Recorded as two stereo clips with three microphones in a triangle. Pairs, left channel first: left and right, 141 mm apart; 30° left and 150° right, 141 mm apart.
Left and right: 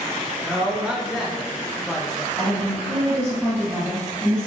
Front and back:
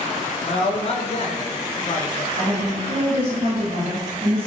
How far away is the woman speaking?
About 1.8 m.